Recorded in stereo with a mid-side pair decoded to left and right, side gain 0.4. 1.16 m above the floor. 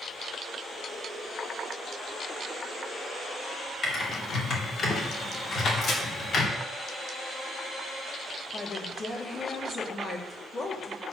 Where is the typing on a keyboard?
60° left, 2.5 m.